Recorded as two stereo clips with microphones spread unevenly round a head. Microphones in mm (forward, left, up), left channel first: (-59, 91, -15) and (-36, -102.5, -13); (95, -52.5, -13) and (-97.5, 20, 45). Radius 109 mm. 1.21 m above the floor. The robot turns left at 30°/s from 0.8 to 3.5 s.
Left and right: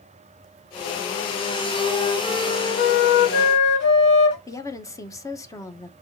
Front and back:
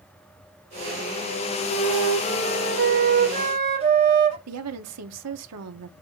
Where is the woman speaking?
170° left, 1.4 m.